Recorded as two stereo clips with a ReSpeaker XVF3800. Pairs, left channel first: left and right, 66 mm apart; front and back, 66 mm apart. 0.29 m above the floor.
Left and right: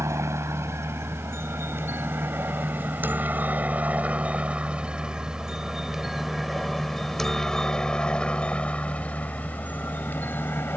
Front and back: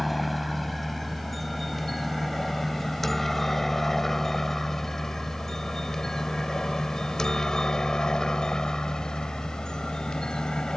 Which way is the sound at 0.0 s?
90° right.